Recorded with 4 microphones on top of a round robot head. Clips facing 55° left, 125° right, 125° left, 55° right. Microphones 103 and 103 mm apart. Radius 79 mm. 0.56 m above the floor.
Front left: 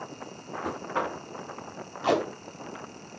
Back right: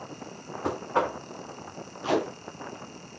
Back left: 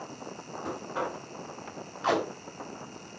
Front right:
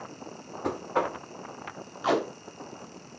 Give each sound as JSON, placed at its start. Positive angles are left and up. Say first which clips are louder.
{"t": 0.6, "sound": "knocking", "louder": "back right 4 dB, front right 6 dB", "azimuth_deg": -65, "distance_m": 1.2}
{"t": 2.0, "sound": "tape being pulled", "louder": "front left 1 dB, front right 1 dB", "azimuth_deg": 30, "distance_m": 2.0}